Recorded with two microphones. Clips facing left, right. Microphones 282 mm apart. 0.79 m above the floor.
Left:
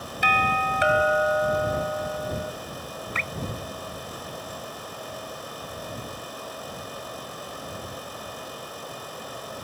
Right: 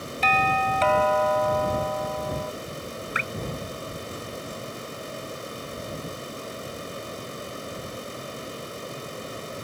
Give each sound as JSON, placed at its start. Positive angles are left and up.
{"t": 0.2, "sound": "a doorbell", "side_deg": 15}
{"t": 3.1, "sound": "dripping", "side_deg": -15}